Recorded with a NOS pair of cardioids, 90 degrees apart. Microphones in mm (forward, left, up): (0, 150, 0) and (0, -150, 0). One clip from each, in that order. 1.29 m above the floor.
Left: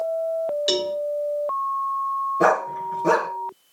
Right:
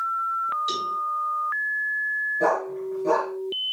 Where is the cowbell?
70° left, 2.5 m.